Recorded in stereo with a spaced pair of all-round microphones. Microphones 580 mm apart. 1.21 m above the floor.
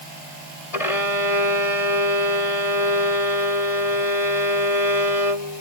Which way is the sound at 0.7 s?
75° left (ahead or behind).